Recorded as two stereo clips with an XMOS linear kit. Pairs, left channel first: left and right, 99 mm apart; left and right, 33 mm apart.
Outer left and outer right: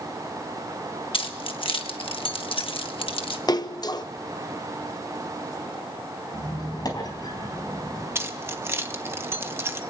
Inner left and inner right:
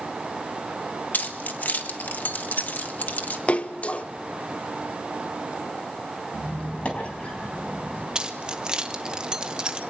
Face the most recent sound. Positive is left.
turn(degrees=-25)  # may be behind; listen again after turning